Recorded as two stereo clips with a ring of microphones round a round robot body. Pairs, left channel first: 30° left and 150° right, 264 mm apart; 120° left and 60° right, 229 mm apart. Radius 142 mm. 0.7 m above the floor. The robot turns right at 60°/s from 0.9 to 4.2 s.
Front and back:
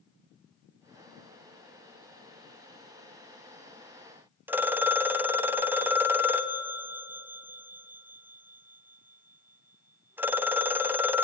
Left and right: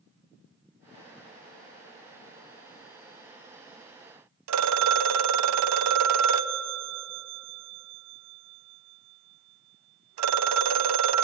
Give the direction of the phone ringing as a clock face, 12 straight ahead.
2 o'clock.